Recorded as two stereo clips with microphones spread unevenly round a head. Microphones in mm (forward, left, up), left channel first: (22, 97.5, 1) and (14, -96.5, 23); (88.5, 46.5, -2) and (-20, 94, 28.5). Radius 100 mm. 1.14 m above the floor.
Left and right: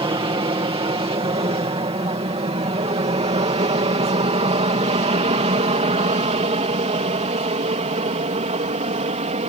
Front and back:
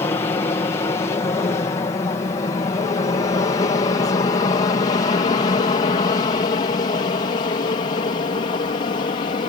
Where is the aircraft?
40° right.